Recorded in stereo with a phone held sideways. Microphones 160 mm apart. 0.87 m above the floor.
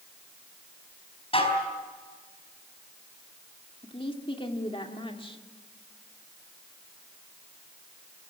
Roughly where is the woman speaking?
Left.